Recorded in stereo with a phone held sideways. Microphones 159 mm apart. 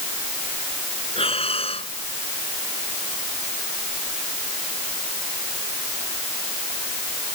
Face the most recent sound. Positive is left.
turn(degrees=35)  # may be behind; listen again after turning